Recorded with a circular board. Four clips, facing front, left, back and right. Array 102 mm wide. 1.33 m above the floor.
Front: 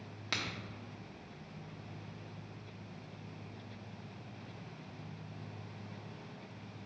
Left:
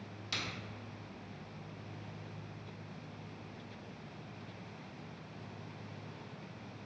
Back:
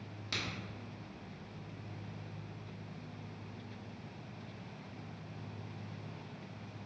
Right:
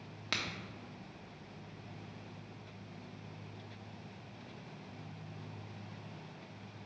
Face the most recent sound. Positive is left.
turn(degrees=-60)